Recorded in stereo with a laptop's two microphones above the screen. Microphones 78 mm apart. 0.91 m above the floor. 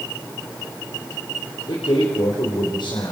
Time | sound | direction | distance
1.7 | a man speaking | 80° left | 4.5 m